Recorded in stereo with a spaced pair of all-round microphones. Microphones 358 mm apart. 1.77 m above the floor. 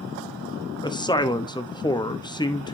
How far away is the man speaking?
About 0.7 m.